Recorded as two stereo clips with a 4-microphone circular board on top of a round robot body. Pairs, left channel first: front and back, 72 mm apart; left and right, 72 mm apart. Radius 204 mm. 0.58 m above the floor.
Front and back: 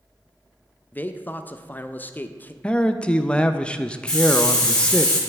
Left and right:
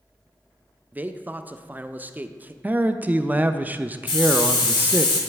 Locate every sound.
0.9 s a man speaking: 45° right, 0.6 m
2.6 s a man speaking: 55° right, 0.6 m
4.1 s a hiss: 80° left, 0.6 m